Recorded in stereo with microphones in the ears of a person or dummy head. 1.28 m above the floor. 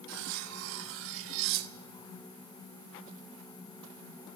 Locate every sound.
0.1 s cutlery clinking: 70° right (ahead or behind), 1.2 m